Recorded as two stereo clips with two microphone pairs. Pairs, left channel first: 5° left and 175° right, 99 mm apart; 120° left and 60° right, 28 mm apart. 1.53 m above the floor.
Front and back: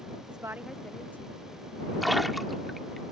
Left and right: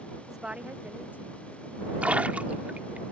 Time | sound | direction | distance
0.3 | a woman speaking | 145° right | ?
2.0 | a splash | 85° right | ?